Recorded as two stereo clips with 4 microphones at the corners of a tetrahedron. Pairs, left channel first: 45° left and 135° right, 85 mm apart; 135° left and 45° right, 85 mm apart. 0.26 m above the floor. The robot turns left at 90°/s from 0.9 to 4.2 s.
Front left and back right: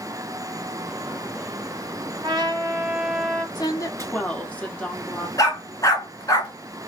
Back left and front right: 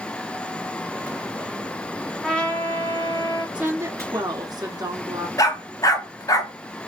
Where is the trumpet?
135° right, 1.4 m; by 3.5 s 115° left, 1.4 m.